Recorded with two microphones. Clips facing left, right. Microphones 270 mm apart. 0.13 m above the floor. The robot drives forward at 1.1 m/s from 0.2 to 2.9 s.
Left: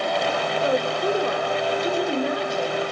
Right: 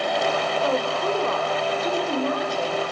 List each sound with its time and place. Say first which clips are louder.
0.6 s a woman speaking: left 3 dB; 20° left (ahead or behind), 3 m; by 2.8 s 10° left (ahead or behind), 5 m